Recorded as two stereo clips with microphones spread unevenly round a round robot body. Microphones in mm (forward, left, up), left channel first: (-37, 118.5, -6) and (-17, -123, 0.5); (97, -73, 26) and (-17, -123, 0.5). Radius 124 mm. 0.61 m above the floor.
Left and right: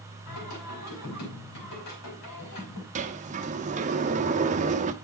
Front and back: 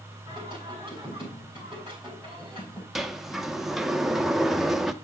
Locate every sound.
0.3 s singing: 105° left, 4.5 m
3.0 s a sliding door: 95° right, 0.7 m